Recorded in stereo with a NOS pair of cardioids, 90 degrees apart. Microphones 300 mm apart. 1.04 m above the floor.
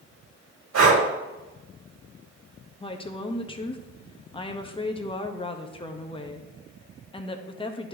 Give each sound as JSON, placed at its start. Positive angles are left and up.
{"t": 0.7, "sound": "breathing", "azimuth_deg": -60, "distance_m": 2.5}
{"t": 2.8, "sound": "a woman speaking", "azimuth_deg": 20, "distance_m": 1.0}